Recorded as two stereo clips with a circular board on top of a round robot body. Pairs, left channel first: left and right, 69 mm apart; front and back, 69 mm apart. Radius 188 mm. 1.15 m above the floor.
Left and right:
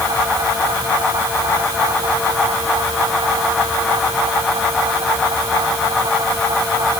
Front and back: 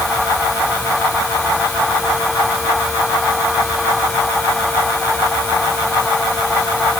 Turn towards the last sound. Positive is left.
No sound to turn to.